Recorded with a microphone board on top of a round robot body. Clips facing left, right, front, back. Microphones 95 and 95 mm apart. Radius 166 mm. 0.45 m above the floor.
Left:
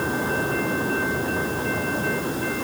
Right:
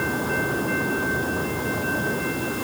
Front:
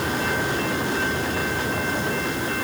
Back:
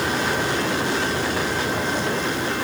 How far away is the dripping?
No dripping in this recording.